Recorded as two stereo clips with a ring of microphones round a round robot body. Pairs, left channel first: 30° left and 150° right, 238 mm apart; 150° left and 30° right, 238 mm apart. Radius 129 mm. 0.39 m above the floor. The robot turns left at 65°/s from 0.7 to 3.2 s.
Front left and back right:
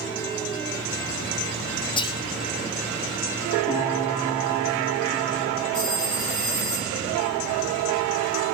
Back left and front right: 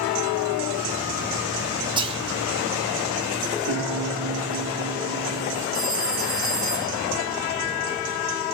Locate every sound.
2.0 s whispering: straight ahead, 0.8 m; by 2.2 s 15° right, 0.8 m
3.7 s a piano: 70° right, 6 m
5.7 s a phone ringing: 70° right, 5.5 m